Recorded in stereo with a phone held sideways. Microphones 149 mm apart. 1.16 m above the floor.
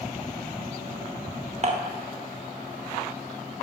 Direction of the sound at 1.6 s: 45° right (ahead or behind).